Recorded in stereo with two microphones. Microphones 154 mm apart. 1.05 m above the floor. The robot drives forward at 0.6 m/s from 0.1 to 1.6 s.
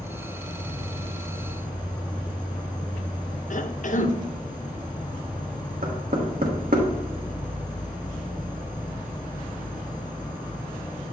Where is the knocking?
70° right (ahead or behind), 1.2 m.